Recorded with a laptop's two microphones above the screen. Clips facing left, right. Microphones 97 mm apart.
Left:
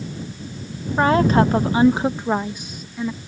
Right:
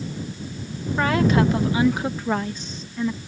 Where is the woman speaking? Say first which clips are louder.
Left 4 dB; 30° left (ahead or behind); by 3.2 s 5° left (ahead or behind).